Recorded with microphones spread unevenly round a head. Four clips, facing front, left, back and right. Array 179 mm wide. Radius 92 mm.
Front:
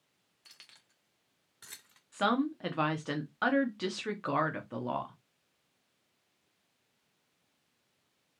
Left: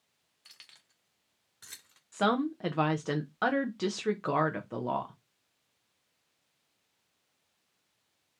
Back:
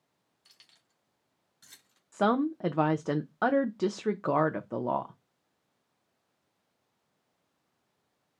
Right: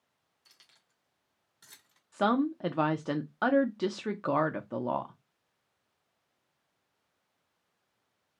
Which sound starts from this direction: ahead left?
Keys jangling, at 0.5 s.